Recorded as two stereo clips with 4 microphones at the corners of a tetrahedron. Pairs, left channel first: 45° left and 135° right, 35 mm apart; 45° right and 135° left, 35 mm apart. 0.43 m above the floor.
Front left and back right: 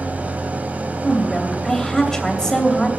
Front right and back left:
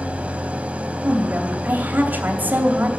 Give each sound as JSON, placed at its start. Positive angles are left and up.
{"t": 0.0, "sound": "an engine running", "azimuth_deg": 180, "distance_m": 1.4}
{"t": 1.0, "sound": "a woman speaking", "azimuth_deg": 125, "distance_m": 2.5}